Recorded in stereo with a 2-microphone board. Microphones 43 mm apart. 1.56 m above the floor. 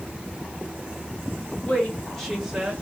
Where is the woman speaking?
35° left (ahead or behind), 1.6 m; by 2.7 s 30° right (ahead or behind), 1.3 m.